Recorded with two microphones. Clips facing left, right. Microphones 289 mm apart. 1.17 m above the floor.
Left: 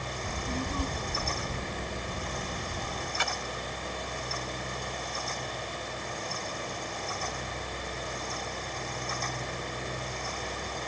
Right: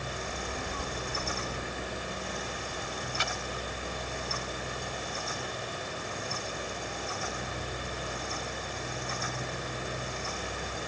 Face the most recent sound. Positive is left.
turn(degrees=60)  # may be behind; listen again after turning